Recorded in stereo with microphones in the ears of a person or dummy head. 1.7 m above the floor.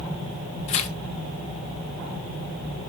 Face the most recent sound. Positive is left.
turn(degrees=45)  # may be behind; listen again after turning